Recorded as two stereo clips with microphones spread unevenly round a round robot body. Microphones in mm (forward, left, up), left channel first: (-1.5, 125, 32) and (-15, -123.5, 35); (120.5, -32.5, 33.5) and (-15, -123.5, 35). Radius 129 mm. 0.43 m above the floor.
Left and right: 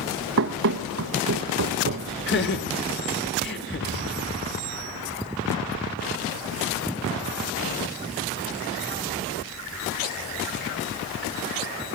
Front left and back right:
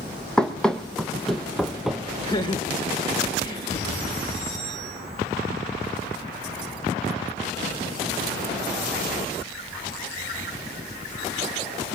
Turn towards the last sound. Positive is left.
turn(degrees=85)